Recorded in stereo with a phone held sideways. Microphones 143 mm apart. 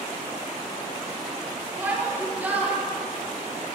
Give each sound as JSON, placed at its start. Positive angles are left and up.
{"t": 1.8, "sound": "a shout", "side_deg": -10, "distance_m": 3.5}